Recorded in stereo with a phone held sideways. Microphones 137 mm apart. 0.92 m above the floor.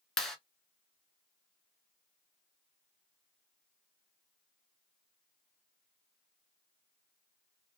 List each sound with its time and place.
0.2 s a clap: 5° left (ahead or behind), 0.8 m